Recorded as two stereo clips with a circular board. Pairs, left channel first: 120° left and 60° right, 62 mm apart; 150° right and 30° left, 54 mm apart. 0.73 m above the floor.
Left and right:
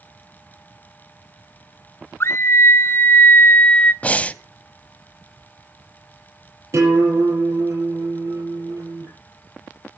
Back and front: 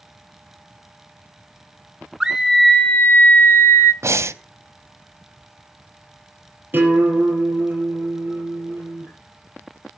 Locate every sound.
2.2 s a scream: 105° left, 0.6 m; by 3.9 s 175° right, 1.0 m
4.0 s breathing: 55° left, 0.6 m
6.7 s a guitar: 25° right, 8.5 m